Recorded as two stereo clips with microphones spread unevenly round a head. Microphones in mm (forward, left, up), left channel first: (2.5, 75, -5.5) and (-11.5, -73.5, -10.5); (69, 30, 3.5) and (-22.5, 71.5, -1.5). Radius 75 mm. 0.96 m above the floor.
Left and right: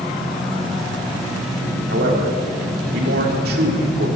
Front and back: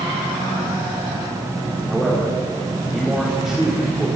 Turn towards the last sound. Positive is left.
turn(degrees=-120)